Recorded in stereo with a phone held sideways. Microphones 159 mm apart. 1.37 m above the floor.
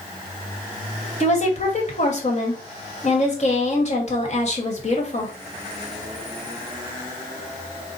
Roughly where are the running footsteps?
I don't hear running footsteps.